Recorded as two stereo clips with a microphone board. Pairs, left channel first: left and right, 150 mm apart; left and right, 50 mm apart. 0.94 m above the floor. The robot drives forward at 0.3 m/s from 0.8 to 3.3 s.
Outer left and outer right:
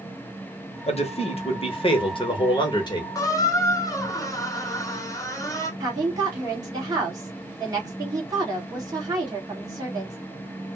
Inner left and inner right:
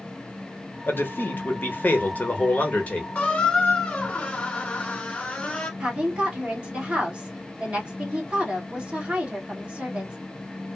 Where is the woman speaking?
25° right (ahead or behind), 1.4 m.